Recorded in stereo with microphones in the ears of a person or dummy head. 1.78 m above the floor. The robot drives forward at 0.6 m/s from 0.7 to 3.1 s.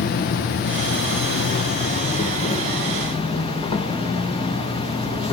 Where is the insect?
50° left (ahead or behind), 1.1 m; by 5.3 s 30° left (ahead or behind), 1.7 m.